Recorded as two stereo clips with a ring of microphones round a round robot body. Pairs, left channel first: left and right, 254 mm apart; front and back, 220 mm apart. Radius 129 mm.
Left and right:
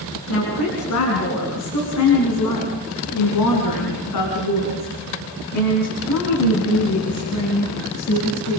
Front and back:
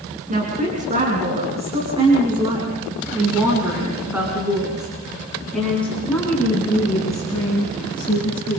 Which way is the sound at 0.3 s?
125° left.